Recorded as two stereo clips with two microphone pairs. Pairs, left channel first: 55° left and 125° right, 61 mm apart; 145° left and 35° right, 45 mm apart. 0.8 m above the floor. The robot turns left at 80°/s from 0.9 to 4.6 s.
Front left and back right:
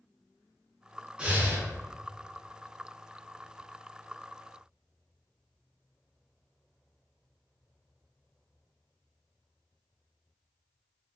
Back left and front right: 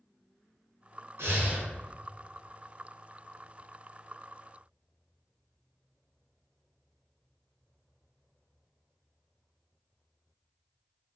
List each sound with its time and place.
1.2 s breathing: 55° right, 0.5 m; by 1.7 s 90° right, 0.5 m